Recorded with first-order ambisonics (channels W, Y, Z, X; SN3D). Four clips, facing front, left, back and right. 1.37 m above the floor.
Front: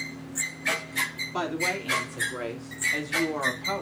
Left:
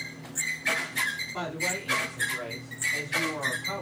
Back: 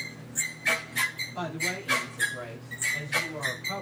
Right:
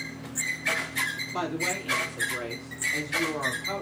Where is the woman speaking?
20° right, 3.5 m; by 3.8 s 15° right, 2.5 m.